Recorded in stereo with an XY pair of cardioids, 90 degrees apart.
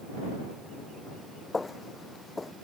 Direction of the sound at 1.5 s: 25° left.